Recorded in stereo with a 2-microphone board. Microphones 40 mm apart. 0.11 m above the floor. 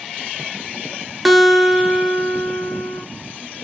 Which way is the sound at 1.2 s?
5° right (ahead or behind).